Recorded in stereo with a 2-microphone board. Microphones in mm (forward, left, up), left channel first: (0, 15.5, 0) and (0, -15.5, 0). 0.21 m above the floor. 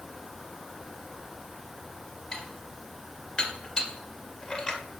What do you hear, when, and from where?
2.3 s dishes clattering: 25° left (ahead or behind), 2 m